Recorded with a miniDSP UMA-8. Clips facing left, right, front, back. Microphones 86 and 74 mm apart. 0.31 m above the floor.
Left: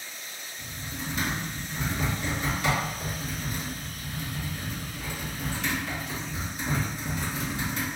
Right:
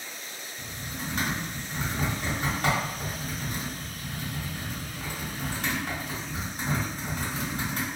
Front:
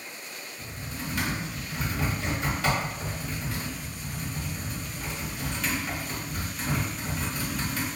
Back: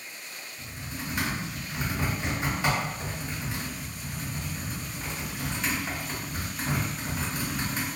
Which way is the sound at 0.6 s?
115° right.